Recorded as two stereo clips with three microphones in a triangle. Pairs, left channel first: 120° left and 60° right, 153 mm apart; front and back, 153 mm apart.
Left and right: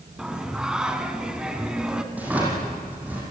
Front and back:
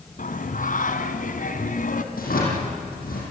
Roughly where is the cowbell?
No cowbell in this recording.